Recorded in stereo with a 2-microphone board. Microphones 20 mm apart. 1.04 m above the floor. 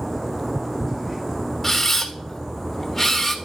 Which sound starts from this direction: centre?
A camera shutter, at 1.6 s.